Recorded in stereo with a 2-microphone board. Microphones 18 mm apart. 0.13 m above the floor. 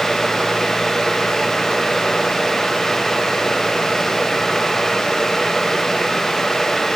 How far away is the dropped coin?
No dropped coin in this recording.